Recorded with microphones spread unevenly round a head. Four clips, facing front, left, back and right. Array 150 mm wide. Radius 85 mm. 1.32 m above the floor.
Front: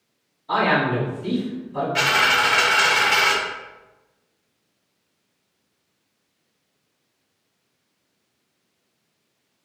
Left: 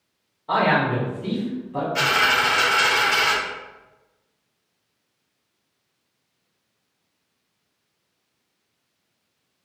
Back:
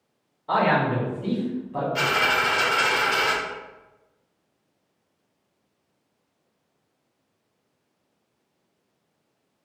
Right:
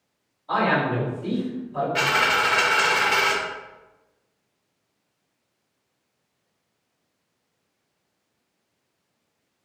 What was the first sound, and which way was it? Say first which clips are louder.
A man speaking: left 2 dB, front 1 dB; 135° left.